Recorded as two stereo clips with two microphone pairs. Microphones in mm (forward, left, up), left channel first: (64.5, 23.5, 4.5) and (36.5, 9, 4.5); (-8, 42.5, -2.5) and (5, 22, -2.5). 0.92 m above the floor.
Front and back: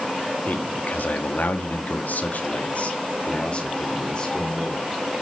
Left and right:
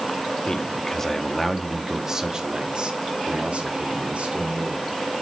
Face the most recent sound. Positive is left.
turn(degrees=-35)